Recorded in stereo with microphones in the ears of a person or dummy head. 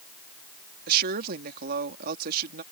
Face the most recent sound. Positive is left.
turn(degrees=-55)  # may be behind; listen again after turning